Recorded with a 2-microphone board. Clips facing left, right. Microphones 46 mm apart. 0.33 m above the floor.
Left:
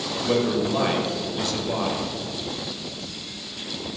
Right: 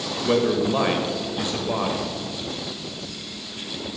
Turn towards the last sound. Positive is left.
turn(degrees=-20)  # may be behind; listen again after turning